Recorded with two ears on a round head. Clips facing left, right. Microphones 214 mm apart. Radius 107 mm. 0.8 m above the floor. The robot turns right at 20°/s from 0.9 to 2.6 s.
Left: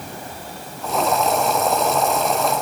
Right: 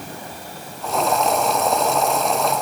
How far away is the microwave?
No microwave in this recording.